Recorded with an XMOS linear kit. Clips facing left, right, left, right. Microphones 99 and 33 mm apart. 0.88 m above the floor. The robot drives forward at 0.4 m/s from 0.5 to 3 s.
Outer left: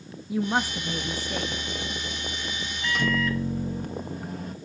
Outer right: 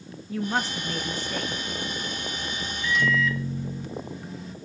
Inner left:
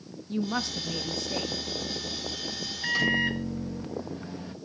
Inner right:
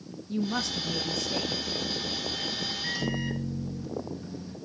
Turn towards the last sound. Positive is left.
turn(degrees=50)  # may be behind; listen again after turning